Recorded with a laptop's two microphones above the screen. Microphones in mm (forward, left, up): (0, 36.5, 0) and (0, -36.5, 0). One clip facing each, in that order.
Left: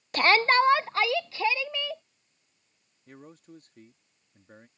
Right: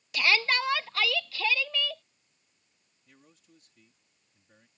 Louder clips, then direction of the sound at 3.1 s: Left 12 dB; 50° left (ahead or behind).